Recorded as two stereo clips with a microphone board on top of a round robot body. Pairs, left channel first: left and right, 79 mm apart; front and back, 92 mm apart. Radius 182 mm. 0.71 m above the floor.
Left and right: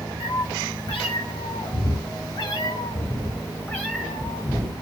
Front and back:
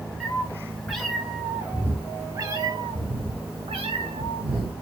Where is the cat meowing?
80° left, 1.6 m; by 4.7 s 170° right, 1.4 m.